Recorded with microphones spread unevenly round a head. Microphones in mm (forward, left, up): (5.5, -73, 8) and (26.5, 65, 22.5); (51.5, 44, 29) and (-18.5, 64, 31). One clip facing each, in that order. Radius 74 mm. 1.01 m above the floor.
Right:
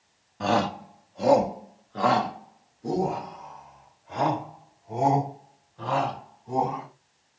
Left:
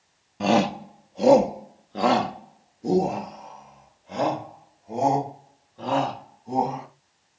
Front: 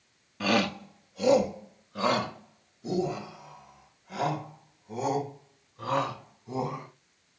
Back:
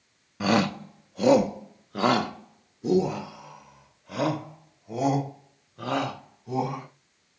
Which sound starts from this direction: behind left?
A shout, at 0.4 s.